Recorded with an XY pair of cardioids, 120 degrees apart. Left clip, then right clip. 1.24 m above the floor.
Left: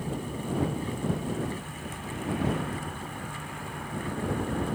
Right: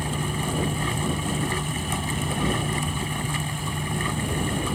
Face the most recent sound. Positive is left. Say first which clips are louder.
# right 7 dB
turn(degrees=-70)